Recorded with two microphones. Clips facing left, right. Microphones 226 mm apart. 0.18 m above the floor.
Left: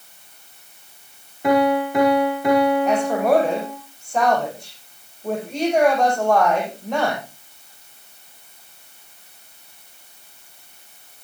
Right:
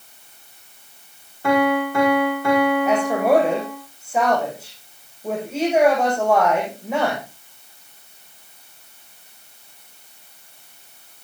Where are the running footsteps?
I don't hear running footsteps.